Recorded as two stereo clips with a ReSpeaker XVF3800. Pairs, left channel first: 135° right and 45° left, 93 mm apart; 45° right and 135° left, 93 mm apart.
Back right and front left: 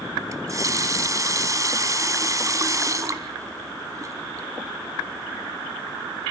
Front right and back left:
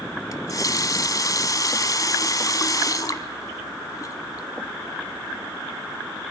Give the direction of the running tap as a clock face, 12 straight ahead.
12 o'clock.